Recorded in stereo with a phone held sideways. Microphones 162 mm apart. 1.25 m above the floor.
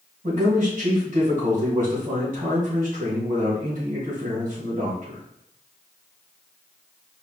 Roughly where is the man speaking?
Right.